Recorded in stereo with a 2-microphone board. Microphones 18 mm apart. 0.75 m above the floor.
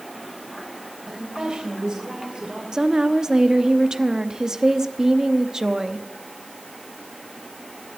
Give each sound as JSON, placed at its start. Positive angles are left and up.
{"t": 1.1, "sound": "a woman speaking", "side_deg": -65, "distance_m": 4.0}
{"t": 2.7, "sound": "a woman speaking", "side_deg": -45, "distance_m": 0.9}